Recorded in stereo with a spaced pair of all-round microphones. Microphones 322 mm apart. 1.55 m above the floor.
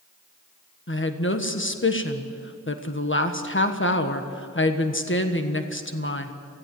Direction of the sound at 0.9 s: 40° left (ahead or behind).